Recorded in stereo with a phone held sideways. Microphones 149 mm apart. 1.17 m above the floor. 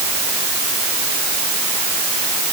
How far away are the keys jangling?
I don't hear keys jangling.